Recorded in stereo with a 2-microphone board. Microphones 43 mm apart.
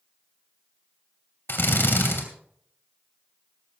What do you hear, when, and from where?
1.5 s a drill: 60° left (ahead or behind), 2.5 m